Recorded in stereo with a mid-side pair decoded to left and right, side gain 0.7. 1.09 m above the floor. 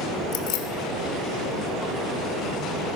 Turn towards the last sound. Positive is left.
turn(degrees=65)